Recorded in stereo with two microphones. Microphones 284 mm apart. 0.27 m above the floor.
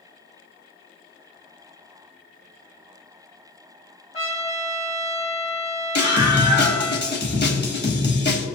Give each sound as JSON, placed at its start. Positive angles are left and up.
{"t": 4.1, "sound": "a trumpet", "side_deg": 20, "distance_m": 1.5}
{"t": 6.0, "sound": "a scream", "side_deg": 40, "distance_m": 1.5}